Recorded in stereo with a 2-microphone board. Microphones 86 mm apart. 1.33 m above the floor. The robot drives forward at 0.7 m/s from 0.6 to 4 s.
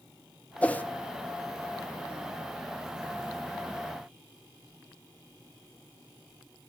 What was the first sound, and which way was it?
A whoosh, 15° left (ahead or behind).